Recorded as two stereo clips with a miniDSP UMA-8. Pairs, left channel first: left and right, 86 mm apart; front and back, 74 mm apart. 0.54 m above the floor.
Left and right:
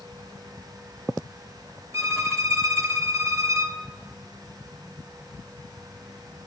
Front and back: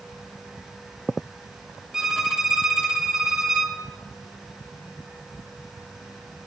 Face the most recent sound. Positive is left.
turn(degrees=-105)